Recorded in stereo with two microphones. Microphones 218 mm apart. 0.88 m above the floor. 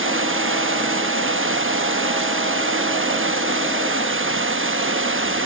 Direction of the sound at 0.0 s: 65° right (ahead or behind).